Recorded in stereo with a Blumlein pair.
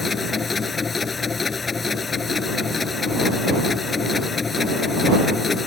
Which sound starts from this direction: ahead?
A machine running, at 0.0 s.